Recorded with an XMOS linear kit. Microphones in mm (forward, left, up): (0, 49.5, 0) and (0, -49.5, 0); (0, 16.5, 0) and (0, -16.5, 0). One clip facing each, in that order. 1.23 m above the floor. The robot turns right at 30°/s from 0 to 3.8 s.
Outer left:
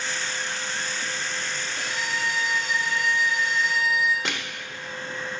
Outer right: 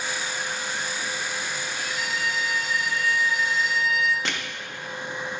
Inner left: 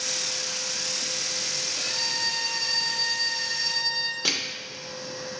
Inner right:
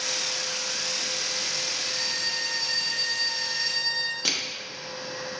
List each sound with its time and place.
1.8 s a violin: 115° left, 0.8 m; by 4.2 s 175° left, 0.8 m
4.2 s crushing: centre (ahead or behind), 1.1 m